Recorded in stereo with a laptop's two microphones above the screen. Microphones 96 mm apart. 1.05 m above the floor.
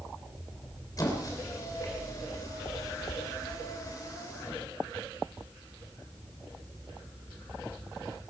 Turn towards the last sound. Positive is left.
turn(degrees=40)  # may be behind; listen again after turning